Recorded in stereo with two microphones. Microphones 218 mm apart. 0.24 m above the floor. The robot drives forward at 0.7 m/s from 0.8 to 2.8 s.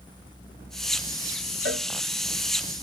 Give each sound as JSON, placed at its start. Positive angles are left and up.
{"t": 1.6, "sound": "a cowbell", "side_deg": -60, "distance_m": 1.2}